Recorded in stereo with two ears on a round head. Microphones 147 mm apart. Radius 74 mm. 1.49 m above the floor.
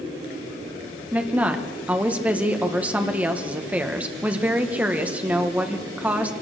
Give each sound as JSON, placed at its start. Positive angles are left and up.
{"t": 1.1, "sound": "a woman speaking", "side_deg": -10, "distance_m": 1.4}